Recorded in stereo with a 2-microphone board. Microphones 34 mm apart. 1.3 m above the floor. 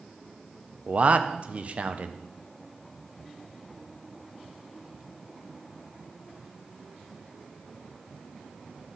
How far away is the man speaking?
About 0.5 m.